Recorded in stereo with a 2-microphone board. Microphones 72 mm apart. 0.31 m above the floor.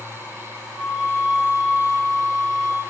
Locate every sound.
0.7 s a flute: centre (ahead or behind), 1.6 m